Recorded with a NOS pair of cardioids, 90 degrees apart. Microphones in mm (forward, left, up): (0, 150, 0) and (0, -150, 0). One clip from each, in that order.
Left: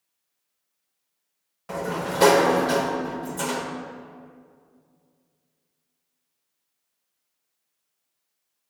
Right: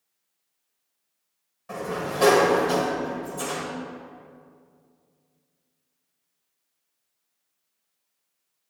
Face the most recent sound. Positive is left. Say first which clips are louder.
# left 2 dB
turn(degrees=45)